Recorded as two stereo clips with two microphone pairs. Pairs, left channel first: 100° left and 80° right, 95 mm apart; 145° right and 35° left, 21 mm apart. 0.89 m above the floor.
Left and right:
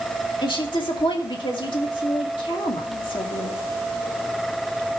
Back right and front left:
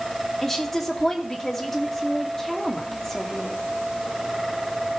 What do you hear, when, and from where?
0.4 s a woman speaking: 135° left, 2.5 m